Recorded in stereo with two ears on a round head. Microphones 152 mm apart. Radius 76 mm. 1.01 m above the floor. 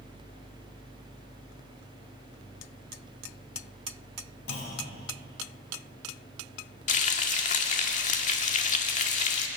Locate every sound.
4.5 s a clunk: 65° left (ahead or behind), 8 m
6.9 s frying: 45° left (ahead or behind), 2.0 m